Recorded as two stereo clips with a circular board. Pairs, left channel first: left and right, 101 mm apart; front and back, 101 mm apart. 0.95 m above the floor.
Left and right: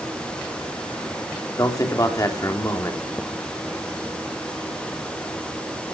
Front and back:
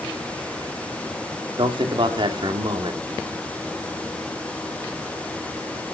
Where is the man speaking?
145° left, 2.5 m.